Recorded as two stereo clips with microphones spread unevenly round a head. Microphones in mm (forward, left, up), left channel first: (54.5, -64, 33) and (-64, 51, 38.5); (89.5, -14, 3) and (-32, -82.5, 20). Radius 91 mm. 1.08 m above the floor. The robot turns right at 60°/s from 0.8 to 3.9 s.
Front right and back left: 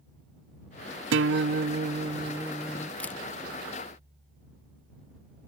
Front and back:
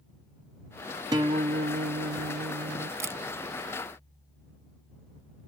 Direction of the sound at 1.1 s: 135° left.